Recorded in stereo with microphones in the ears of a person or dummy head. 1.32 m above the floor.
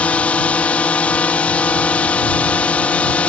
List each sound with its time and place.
0.0 s a drone: 15° left (ahead or behind)